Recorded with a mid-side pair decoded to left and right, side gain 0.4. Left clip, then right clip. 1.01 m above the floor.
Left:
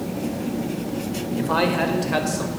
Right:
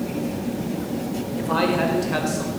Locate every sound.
1.4 s a man speaking: 20° left, 4.5 m; by 2.5 s 25° left, 5 m